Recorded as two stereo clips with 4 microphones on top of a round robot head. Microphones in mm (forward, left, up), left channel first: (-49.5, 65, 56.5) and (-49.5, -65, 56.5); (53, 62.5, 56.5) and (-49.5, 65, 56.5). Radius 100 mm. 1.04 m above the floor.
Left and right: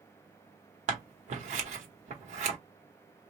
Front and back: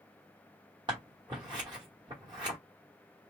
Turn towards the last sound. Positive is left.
turn(degrees=-115)